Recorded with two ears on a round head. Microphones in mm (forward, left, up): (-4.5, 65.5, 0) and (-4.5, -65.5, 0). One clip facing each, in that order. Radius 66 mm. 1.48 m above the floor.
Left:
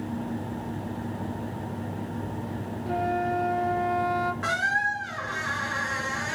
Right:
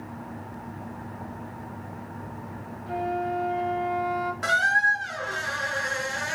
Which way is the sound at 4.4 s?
45° right (ahead or behind).